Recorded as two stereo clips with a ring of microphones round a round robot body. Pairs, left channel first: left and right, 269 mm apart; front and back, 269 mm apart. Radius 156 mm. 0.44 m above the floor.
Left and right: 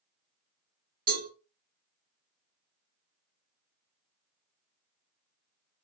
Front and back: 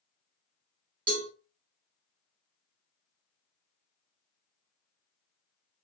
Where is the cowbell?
135° right, 1.5 m.